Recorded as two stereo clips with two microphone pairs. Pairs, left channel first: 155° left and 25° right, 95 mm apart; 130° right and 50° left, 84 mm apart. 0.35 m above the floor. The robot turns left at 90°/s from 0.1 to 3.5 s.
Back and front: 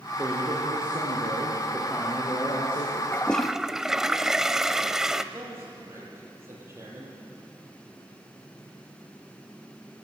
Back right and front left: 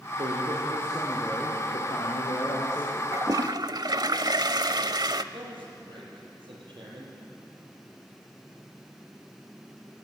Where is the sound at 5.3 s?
40° left, 9.5 m.